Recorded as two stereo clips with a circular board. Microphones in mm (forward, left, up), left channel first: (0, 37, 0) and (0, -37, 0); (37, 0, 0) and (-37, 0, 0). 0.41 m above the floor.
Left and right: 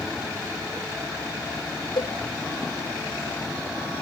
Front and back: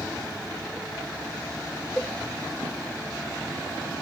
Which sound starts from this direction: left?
A cowbell, at 2.0 s.